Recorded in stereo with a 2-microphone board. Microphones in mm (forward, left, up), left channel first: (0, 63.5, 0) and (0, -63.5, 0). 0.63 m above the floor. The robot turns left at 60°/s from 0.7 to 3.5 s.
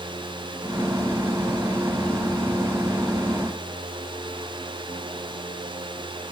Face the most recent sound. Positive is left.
No sound to turn to.